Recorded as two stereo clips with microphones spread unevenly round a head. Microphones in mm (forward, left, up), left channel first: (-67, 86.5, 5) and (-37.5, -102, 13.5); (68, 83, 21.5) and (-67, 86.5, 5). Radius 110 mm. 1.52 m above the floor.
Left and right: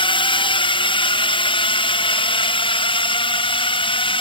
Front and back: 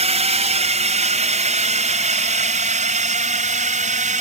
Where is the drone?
155° left; by 4.2 s 160° left.